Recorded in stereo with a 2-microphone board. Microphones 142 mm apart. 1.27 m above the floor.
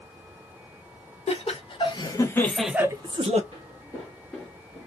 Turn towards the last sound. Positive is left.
turn(degrees=-5)  # may be behind; listen again after turning